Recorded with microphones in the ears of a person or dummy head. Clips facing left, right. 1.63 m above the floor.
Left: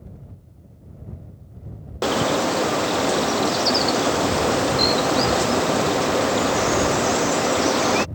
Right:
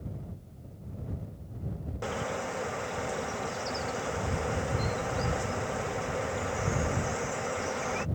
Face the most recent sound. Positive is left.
turn(degrees=80)